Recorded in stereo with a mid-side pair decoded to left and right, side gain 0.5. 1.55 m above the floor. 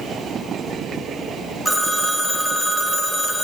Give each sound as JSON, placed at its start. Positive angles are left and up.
{"t": 1.6, "sound": "a phone ringing", "azimuth_deg": -5, "distance_m": 1.5}